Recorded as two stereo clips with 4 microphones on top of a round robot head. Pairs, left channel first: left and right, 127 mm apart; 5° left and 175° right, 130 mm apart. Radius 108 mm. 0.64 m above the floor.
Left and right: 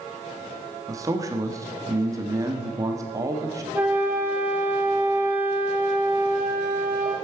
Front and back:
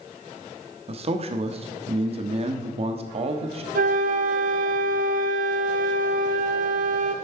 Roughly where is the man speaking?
Behind right.